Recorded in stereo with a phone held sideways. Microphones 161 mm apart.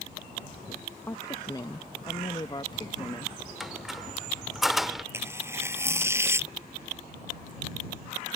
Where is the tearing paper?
15° right (ahead or behind).